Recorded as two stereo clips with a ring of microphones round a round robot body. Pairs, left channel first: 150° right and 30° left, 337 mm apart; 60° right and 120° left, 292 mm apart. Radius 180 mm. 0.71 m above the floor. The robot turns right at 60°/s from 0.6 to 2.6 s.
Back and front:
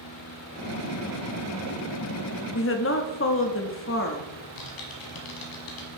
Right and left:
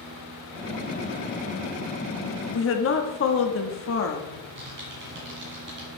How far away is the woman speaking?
About 1.0 m.